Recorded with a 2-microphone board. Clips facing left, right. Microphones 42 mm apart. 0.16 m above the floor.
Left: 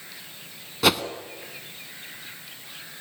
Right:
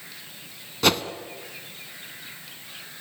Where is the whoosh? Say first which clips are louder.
Even; 5° left (ahead or behind), 1.1 m.